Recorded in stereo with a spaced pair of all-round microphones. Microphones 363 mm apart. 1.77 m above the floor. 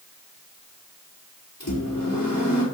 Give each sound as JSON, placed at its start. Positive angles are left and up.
{"t": 1.6, "sound": "a microwave", "side_deg": 70, "distance_m": 5.0}